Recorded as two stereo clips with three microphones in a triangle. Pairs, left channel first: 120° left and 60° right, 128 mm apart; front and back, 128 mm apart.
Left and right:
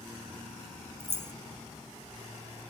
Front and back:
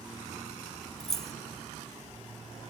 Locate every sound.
1.0 s keys jangling: 80° right, 1.0 m